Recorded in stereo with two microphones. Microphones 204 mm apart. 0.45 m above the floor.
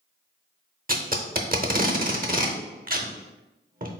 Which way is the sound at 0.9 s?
45° right (ahead or behind).